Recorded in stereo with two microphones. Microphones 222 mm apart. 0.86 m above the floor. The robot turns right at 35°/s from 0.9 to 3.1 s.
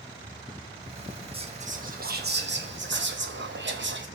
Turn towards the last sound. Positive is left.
turn(degrees=-85)